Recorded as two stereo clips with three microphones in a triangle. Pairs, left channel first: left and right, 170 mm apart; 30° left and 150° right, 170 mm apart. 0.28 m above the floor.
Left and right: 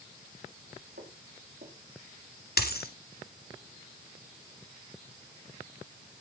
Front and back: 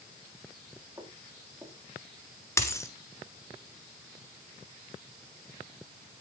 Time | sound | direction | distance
1.0 | footsteps | 80° right | 5 m
2.6 | a dropped coin | 100° left | 1.6 m